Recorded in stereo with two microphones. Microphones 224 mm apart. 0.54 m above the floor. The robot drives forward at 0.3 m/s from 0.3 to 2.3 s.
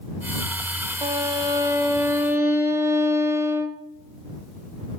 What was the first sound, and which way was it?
A violin, 20° right (ahead or behind).